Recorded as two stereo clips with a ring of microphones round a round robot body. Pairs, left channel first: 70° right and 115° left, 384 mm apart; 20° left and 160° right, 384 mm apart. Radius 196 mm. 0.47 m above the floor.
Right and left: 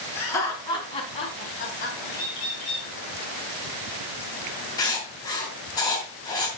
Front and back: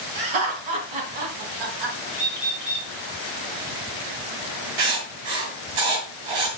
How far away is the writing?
About 3 m.